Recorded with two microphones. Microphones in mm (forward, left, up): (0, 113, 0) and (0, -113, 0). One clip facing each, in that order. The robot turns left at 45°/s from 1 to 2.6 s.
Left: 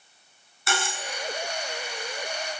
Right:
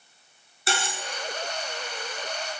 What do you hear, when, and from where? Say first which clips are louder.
0.7 s cutlery clinking: even; 30° right (ahead or behind), 0.9 m